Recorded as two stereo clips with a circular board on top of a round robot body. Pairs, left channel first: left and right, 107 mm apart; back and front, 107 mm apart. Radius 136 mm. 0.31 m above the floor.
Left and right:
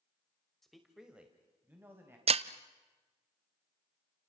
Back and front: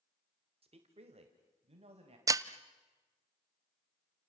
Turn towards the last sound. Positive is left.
turn(degrees=-60)